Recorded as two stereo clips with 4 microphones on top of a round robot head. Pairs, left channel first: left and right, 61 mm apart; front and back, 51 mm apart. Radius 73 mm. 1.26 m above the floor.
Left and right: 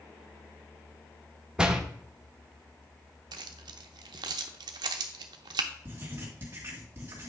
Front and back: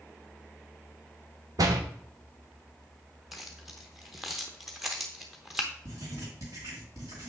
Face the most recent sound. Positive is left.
turn(degrees=-145)